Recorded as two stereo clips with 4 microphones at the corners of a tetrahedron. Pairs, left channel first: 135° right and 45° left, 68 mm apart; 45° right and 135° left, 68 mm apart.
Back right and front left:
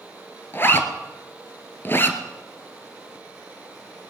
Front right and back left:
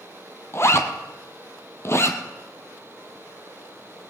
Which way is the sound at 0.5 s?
85° right.